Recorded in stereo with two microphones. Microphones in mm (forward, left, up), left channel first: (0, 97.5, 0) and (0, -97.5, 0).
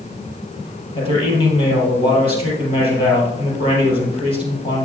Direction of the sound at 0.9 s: 25° left (ahead or behind).